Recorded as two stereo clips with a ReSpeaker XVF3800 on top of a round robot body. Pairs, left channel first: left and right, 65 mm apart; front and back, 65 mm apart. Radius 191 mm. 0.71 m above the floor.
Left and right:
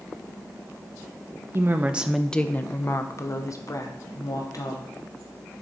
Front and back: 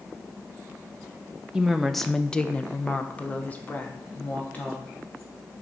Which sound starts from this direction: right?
A woman speaking, at 1.5 s.